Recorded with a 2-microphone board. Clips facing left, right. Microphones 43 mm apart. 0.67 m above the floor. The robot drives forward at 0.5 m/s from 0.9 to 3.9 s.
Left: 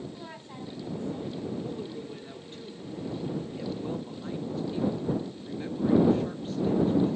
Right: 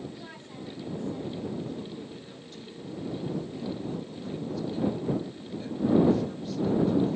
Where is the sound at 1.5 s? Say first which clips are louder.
Left 1 dB; 20° left (ahead or behind), 2.5 m; by 7.2 s 35° left (ahead or behind), 1.7 m.